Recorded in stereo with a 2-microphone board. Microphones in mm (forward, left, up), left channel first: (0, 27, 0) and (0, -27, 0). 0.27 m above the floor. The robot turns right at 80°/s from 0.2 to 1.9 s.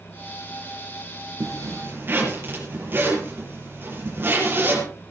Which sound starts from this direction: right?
A zipper, at 1.4 s.